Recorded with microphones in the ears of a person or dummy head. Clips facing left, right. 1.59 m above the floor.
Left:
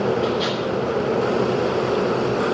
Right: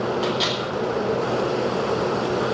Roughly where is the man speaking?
No man speaking in this recording.